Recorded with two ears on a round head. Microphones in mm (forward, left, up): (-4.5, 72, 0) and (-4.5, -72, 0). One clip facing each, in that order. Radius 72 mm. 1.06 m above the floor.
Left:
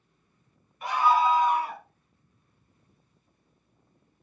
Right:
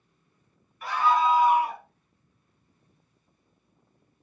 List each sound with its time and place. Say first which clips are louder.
0.8 s a scream: left 1 dB; 20° left (ahead or behind), 0.8 m; by 1.9 s 20° right (ahead or behind), 0.9 m